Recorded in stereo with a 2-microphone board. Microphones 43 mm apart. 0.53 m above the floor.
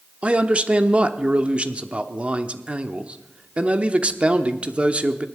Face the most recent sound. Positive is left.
turn(degrees=-30)  # may be behind; listen again after turning